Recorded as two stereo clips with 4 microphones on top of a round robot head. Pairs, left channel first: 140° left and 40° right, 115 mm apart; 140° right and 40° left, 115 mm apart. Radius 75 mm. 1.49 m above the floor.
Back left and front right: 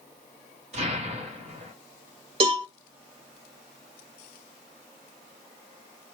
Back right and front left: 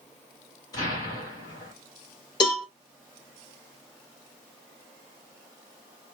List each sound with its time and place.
0.7 s an explosion: 80° right, 2.5 m
2.4 s a cowbell: 85° right, 2 m